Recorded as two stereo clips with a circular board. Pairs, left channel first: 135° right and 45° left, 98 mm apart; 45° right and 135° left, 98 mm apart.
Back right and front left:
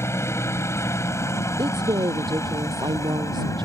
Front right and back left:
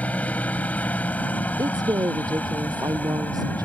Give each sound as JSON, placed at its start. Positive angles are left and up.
{"t": 0.0, "sound": "a helicopter", "azimuth_deg": -105}
{"t": 1.6, "sound": "a woman speaking", "azimuth_deg": 85}